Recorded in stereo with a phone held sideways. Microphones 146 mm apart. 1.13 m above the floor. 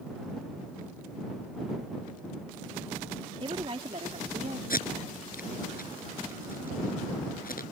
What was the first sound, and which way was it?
A woman speaking, 35° right (ahead or behind).